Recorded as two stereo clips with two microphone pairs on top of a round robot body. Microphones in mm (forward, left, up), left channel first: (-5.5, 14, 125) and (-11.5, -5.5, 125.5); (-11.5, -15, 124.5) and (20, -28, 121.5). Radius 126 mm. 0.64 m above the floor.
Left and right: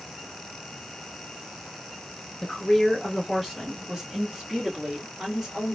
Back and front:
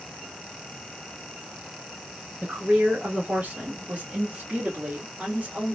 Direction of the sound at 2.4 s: 5° left.